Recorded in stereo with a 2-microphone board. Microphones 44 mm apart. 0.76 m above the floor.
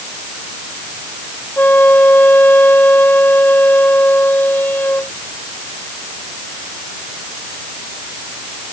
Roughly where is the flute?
Left.